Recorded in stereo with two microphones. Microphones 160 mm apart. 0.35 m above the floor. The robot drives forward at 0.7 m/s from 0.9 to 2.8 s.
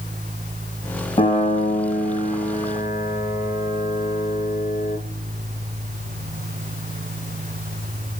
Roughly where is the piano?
Left.